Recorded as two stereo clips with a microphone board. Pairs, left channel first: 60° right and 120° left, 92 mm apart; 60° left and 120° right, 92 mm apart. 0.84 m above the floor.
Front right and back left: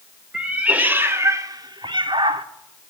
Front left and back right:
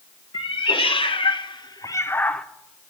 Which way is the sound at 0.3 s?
40° left.